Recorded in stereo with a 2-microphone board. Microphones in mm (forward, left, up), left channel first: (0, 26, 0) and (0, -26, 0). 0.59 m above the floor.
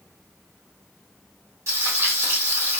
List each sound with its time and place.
1.7 s frying: 65° right (ahead or behind), 1.0 m